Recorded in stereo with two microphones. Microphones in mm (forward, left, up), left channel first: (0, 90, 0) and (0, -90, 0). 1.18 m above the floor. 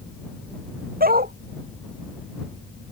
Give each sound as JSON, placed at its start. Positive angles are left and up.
{"t": 1.0, "sound": "a dog barking", "side_deg": -55}